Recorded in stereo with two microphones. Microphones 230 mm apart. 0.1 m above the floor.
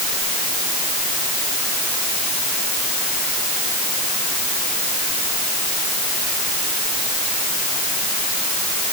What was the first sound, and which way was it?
Only background noise.